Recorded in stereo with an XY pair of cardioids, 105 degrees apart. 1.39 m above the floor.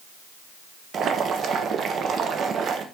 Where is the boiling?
55° right, 0.6 m.